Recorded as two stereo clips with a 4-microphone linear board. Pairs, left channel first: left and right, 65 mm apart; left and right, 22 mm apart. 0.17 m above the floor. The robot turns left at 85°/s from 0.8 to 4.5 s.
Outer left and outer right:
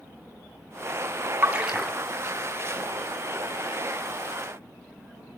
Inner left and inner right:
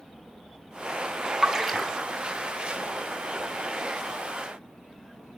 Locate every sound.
1.4 s a splash: 35° right (ahead or behind), 0.7 m; by 1.9 s 10° left (ahead or behind), 0.7 m